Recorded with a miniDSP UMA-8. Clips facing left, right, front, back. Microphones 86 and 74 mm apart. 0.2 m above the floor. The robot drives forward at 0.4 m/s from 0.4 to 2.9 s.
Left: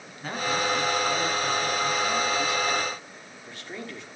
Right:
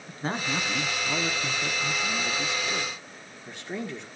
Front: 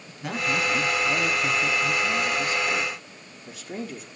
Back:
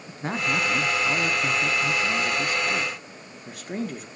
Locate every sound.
0.1 s a man speaking: 135° right, 1.5 m; by 4.1 s 155° right, 2.5 m